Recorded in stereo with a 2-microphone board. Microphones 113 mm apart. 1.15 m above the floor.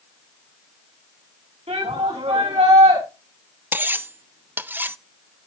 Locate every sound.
1.7 s a shout: 70° right (ahead or behind), 7 m; by 3.0 s 75° right (ahead or behind), 7.5 m
3.7 s cutlery clinking: 15° right (ahead or behind), 0.5 m